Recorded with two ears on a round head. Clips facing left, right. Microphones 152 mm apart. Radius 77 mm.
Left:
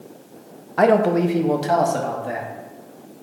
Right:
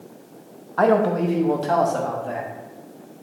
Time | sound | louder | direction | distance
0.8 | a man speaking | left 2 dB | 20° left (ahead or behind) | 0.6 m